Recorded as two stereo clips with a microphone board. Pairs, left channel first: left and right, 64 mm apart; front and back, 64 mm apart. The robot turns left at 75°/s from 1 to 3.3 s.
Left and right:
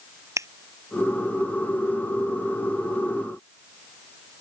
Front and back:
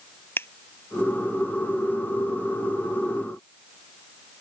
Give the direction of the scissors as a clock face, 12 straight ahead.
2 o'clock.